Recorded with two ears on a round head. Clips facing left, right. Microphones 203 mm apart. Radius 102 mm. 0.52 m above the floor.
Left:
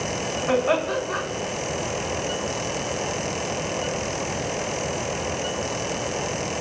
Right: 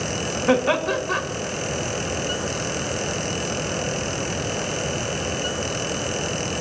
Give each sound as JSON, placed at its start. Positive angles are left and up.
{"t": 0.5, "sound": "laughter", "side_deg": -65, "distance_m": 2.5}